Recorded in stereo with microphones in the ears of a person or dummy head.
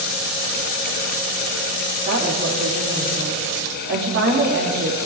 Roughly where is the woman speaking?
Right.